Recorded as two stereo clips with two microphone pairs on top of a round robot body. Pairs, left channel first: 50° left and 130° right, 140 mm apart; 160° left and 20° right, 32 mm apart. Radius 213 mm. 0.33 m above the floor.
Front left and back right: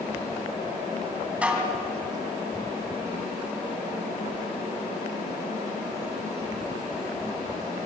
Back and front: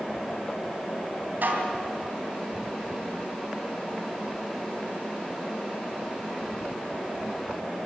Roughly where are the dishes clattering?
Ahead right.